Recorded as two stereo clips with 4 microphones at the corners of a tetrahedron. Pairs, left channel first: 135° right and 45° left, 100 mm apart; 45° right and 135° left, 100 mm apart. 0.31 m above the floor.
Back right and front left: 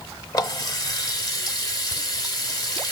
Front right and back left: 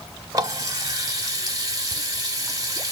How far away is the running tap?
About 1.0 m.